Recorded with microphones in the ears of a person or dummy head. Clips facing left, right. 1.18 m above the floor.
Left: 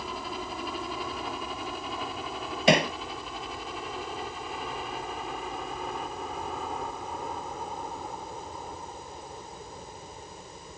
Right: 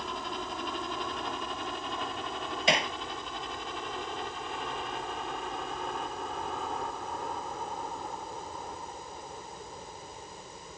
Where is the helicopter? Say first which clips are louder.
Left 1 dB; 5° left (ahead or behind).